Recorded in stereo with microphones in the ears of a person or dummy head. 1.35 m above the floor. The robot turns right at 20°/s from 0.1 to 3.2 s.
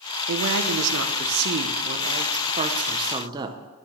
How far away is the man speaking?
About 0.9 m.